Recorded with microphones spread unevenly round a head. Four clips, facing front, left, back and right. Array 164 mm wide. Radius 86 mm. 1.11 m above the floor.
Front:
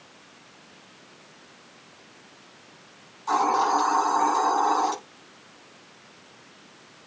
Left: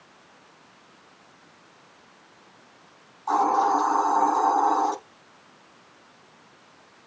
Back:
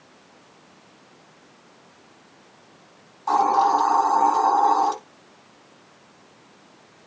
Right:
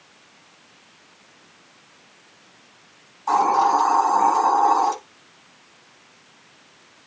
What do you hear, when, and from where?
3.3 s a hiss: 115° right, 7 m